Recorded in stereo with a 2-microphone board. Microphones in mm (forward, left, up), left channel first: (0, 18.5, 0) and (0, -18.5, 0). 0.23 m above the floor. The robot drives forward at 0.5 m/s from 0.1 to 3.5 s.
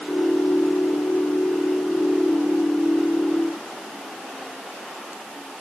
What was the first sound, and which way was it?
Only background noise.